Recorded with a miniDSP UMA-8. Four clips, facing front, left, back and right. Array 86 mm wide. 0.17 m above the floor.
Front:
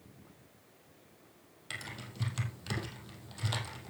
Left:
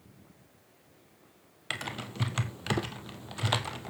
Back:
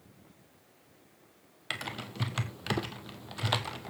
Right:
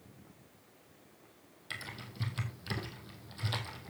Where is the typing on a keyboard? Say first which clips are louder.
Left 8 dB, back 6 dB; 130° left, 1.6 m.